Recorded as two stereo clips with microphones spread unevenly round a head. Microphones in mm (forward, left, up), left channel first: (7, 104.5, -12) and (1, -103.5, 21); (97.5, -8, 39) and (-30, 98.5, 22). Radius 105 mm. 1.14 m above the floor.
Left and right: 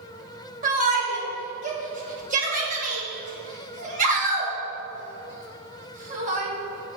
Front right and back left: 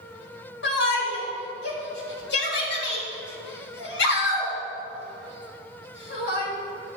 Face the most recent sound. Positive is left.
turn(degrees=-35)